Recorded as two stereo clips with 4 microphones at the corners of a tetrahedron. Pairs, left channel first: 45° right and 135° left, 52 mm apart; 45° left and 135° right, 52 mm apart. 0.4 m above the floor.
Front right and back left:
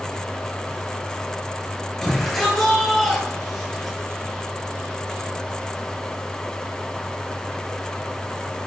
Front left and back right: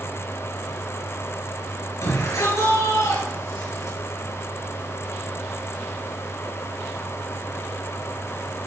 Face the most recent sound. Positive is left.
turn(degrees=40)